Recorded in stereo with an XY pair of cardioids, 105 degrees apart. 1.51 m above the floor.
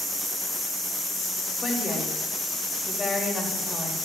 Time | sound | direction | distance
1.6 | a woman speaking | 25° left | 3 m